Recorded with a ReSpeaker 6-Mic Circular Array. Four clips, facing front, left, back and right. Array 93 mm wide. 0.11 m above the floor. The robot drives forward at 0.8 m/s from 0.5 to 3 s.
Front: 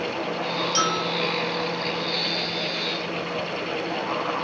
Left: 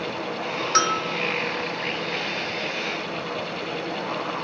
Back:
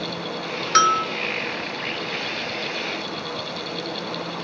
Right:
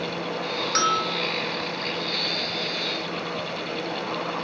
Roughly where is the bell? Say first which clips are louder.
Left 1 dB, back 9 dB; behind.